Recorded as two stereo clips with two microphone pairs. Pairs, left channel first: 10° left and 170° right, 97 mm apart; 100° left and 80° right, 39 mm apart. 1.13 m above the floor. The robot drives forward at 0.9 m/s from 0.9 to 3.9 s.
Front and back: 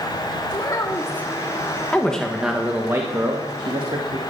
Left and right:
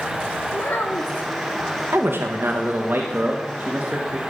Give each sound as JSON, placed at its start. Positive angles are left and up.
{"t": 0.5, "sound": "a child speaking", "azimuth_deg": 65, "distance_m": 1.0}
{"t": 1.9, "sound": "a man speaking", "azimuth_deg": -65, "distance_m": 1.3}